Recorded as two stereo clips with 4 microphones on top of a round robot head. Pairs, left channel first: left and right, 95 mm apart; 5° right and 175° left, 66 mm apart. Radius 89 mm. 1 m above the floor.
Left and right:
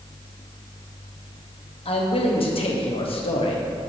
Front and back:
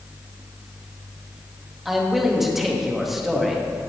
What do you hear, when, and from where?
1.9 s a man speaking: 90° left, 2 m